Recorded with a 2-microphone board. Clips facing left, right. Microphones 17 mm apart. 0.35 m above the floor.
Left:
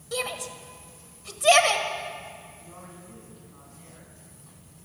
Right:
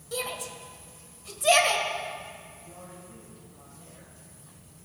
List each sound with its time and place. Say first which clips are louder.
0.1 s a shout: left 3 dB; 25° left (ahead or behind), 1.6 m
2.6 s a man speaking: even; 60° left (ahead or behind), 3.5 m